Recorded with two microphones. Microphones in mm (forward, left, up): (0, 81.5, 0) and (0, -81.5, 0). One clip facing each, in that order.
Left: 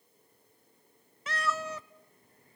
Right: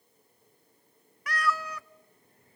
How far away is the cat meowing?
About 0.5 m.